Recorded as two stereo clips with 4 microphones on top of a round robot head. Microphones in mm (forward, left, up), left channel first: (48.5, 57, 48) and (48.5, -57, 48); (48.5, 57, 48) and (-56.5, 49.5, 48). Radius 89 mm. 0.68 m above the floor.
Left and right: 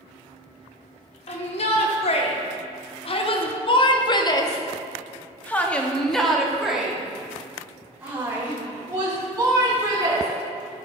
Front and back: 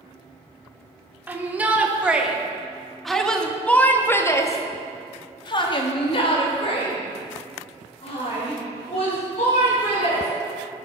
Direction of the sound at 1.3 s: 110° left.